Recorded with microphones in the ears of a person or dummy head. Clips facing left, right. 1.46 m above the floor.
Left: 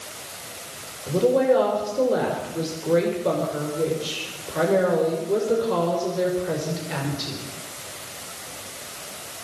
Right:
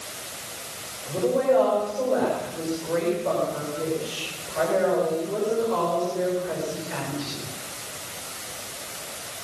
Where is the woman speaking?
45° left (ahead or behind), 6 m.